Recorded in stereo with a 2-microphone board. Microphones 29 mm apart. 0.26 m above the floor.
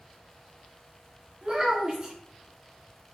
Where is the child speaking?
30° right (ahead or behind), 2.5 m.